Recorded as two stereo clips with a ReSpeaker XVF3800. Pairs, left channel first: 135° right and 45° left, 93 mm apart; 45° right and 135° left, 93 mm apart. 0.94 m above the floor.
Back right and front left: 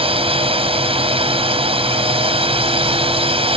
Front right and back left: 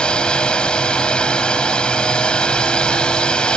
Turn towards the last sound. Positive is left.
turn(degrees=35)